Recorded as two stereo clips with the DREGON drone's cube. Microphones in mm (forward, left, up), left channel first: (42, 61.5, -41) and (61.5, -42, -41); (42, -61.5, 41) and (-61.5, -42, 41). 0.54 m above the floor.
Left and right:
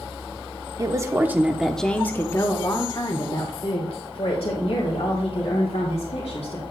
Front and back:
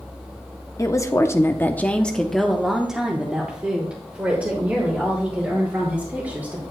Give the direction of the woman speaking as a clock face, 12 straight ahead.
2 o'clock.